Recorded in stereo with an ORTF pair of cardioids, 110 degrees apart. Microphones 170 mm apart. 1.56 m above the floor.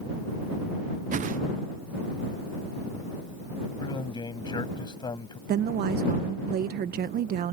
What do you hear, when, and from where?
1.1 s a whoosh: 45° right
3.8 s a man speaking: 25° left
5.5 s a woman speaking: 60° right